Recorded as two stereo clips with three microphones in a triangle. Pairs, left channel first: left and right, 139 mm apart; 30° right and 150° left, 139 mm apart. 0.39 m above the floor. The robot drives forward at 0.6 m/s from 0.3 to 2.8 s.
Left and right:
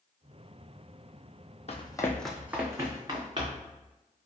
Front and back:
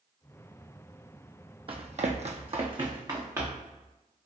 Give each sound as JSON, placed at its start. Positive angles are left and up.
{"t": 1.7, "sound": "running footsteps", "azimuth_deg": 115, "distance_m": 0.7}